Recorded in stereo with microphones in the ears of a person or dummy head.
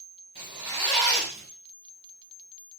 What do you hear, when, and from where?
0.3 s a zipper: 25° right (ahead or behind), 1.2 m